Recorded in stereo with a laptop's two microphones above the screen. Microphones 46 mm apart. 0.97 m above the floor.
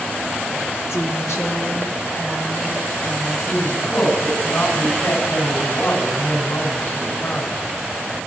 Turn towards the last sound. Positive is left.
turn(degrees=60)  # may be behind; listen again after turning